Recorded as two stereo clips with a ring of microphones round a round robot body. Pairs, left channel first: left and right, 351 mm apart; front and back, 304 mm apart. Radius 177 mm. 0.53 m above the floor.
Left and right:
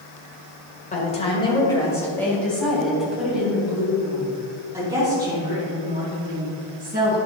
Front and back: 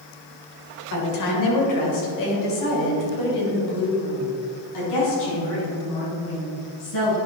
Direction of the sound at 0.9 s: 20° left.